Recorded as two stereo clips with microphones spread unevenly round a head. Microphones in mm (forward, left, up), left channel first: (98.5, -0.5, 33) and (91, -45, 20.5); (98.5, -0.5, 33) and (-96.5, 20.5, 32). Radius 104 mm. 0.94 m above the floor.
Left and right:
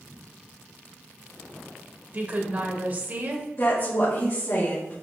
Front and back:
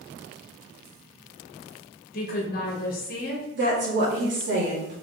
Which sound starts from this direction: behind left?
A woman speaking, at 3.5 s.